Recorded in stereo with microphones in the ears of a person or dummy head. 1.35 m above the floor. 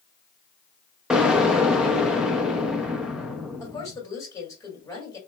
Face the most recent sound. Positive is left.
turn(degrees=15)  # may be behind; listen again after turning